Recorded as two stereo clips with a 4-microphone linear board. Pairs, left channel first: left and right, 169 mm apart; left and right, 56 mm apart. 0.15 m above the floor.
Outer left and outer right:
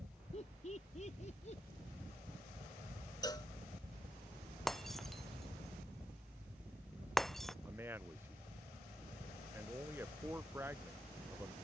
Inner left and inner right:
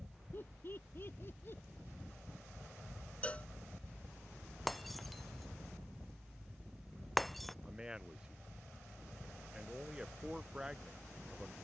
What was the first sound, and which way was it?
Laughter, 40° left (ahead or behind).